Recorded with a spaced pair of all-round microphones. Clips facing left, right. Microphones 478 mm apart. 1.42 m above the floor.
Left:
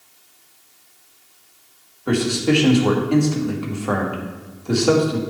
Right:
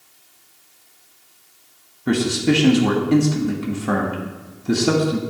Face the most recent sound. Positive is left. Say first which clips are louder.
# even
turn(degrees=-35)  # may be behind; listen again after turning